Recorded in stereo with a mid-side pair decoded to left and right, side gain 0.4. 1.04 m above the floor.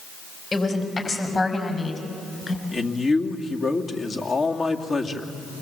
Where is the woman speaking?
40° left, 5.5 m; by 2.6 s 30° left, 6 m.